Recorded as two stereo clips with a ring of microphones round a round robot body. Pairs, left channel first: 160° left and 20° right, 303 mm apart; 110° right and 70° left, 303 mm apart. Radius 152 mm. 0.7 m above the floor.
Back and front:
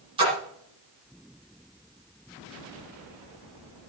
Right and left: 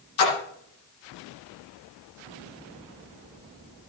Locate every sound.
0.2 s a splash: 95° right, 10 m